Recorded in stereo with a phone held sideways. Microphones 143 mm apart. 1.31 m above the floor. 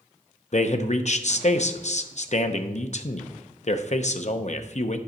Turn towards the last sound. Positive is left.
turn(degrees=55)  # may be behind; listen again after turning